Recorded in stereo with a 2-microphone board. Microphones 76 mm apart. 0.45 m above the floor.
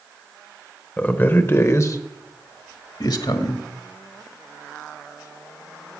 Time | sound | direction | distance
1.0 | a man speaking | 20° left (ahead or behind) | 1.3 m